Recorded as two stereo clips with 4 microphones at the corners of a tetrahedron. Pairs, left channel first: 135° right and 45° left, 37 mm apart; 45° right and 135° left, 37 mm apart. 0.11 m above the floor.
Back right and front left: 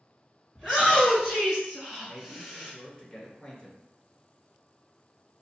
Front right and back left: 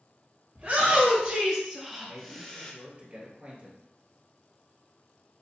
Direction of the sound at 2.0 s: 155° left.